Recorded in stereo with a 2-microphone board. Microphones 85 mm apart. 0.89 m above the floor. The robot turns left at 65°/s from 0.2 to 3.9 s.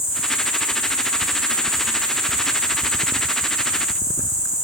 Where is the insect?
105° left, 1.8 m; by 4.7 s 135° right, 1.8 m.